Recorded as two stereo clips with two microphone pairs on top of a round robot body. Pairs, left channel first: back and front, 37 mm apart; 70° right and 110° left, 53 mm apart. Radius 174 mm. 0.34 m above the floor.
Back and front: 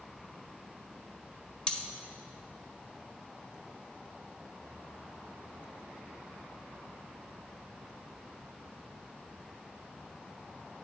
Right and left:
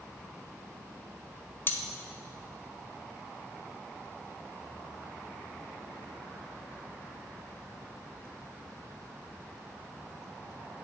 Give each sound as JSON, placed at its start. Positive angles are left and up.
{"t": 1.7, "sound": "cutlery clinking", "azimuth_deg": -110, "distance_m": 0.8}